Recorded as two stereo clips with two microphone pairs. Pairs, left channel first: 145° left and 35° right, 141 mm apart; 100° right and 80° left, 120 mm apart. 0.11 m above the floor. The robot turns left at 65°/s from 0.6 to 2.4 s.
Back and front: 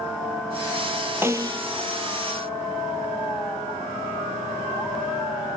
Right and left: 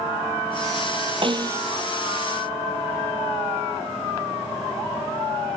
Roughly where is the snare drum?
Ahead left.